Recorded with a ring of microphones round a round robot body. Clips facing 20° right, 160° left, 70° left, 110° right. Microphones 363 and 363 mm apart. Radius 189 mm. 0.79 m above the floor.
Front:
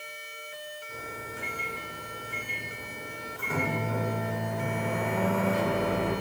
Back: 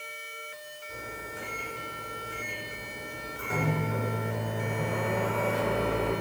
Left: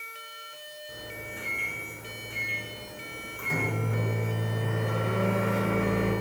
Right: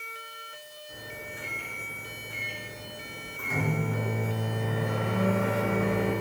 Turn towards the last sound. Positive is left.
turn(degrees=65)